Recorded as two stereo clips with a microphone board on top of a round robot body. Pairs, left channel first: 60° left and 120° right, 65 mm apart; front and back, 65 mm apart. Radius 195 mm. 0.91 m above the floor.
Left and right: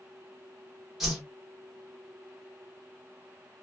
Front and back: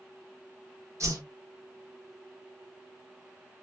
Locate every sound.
1.0 s a whoosh: 155° left, 1.3 m